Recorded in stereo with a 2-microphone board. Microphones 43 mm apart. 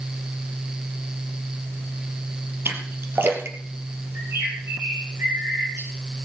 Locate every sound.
2.6 s a splash: 55° right (ahead or behind), 3 m
4.2 s a bird: 75° right (ahead or behind), 4 m